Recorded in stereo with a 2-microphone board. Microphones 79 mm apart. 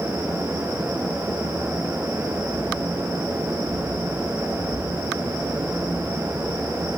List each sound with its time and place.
Only background noise.